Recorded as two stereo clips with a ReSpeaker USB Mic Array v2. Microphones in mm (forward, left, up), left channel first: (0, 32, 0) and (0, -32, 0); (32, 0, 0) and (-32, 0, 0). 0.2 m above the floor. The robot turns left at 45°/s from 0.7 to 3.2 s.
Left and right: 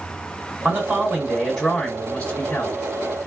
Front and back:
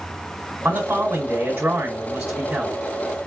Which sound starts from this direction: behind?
A man speaking, at 0.7 s.